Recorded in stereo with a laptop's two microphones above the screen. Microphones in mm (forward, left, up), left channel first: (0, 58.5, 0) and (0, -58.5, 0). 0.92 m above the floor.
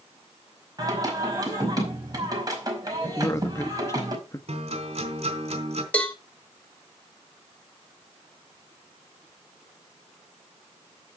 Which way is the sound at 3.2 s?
25° left (ahead or behind).